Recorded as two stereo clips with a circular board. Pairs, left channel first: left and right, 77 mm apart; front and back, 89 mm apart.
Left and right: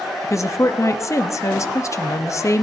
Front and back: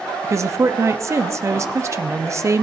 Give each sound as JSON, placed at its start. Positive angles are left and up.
{"t": 0.2, "sound": "a woman speaking", "azimuth_deg": 130, "distance_m": 0.7}